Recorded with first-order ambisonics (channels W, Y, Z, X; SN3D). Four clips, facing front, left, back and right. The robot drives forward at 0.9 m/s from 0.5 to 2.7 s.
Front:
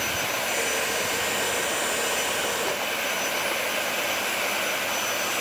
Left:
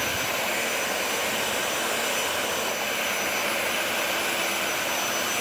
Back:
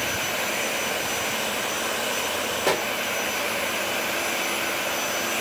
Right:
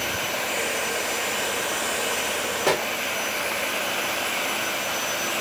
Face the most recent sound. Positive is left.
turn(degrees=-125)